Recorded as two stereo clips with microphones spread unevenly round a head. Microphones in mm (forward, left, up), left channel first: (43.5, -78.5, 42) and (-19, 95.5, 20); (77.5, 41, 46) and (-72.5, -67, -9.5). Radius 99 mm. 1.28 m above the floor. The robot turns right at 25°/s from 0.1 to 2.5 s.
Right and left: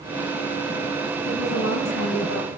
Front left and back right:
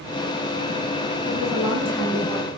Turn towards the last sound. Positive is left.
turn(degrees=-45)